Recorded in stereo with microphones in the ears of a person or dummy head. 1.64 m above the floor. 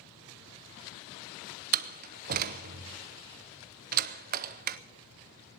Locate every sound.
1.7 s a door slam: 45° right (ahead or behind), 0.7 m